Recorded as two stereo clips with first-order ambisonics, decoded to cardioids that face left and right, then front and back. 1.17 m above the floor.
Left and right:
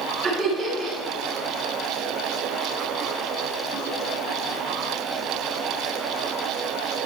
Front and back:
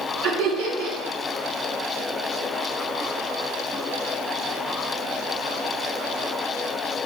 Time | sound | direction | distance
0.2 | laughter | 160° right | 2.5 m